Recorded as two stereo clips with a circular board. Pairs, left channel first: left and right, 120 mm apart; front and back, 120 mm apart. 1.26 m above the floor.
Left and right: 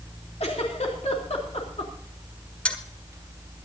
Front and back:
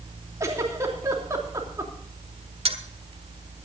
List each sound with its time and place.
0.4 s a giggle: 115° left, 3 m
2.6 s a dropped coin: 170° left, 1.4 m